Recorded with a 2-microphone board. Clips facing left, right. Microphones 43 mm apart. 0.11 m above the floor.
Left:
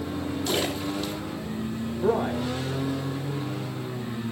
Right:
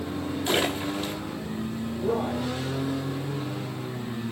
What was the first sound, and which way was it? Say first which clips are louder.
A splash: right 3 dB; 25° right (ahead or behind).